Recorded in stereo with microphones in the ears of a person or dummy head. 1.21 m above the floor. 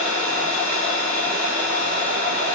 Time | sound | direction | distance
0.0 | an engine running | 50° right (ahead or behind) | 9 m